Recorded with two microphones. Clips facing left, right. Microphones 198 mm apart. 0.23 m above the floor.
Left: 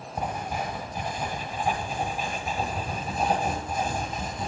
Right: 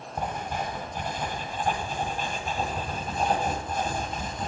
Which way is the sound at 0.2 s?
10° left (ahead or behind).